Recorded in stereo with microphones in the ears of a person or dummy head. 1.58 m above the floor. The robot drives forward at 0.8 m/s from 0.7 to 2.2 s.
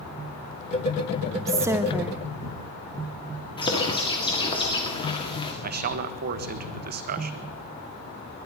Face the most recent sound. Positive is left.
turn(degrees=-45)  # may be behind; listen again after turning